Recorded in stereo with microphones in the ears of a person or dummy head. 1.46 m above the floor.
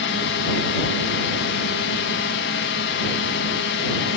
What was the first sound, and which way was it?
A drone, 60° left (ahead or behind).